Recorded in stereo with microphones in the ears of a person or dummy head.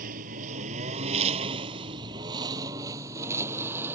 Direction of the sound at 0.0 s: 45° right (ahead or behind).